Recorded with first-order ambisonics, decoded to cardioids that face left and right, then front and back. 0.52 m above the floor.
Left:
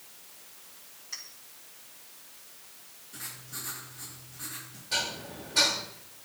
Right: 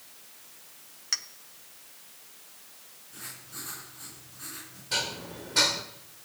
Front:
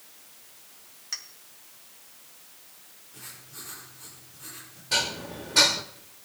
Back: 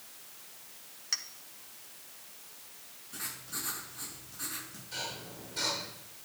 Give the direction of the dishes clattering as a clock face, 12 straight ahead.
1 o'clock.